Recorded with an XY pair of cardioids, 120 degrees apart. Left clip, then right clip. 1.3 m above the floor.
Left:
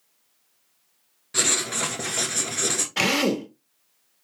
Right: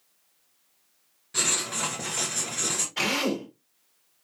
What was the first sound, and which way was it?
Writing, 35° left.